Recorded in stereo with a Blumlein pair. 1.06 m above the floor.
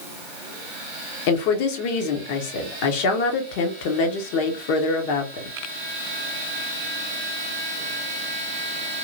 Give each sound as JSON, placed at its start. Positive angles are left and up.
{"t": 1.3, "sound": "a woman speaking", "azimuth_deg": 45, "distance_m": 1.0}